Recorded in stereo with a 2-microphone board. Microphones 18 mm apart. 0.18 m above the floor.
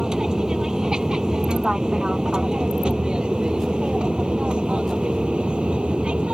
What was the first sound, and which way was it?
An aircraft, 40° right (ahead or behind).